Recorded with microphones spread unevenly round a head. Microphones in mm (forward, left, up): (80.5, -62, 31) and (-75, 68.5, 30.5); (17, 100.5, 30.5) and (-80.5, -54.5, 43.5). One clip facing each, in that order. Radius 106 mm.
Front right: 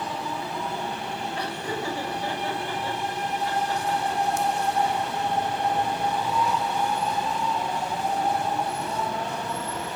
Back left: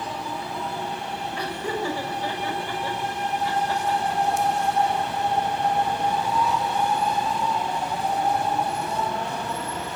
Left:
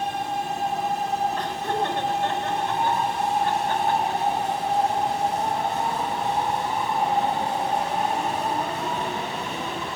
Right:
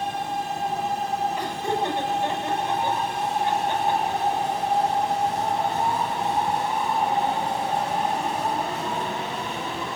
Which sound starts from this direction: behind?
Laughter, at 1.4 s.